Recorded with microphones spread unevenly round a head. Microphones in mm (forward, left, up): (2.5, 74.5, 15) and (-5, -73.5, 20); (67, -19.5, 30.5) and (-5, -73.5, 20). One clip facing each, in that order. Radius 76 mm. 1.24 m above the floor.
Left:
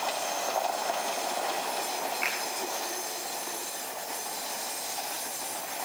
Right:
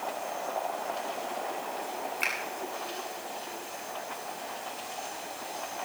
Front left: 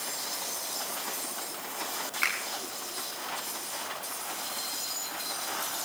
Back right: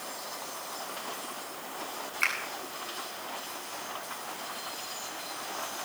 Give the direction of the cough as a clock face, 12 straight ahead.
I don't hear a cough.